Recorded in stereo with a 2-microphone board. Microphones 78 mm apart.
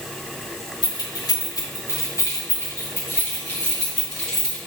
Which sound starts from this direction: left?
Keys jangling, at 0.8 s.